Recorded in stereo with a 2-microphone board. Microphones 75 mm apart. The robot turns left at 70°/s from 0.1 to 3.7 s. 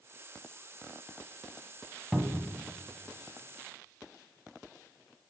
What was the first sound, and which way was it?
A cupboard door, 170° right.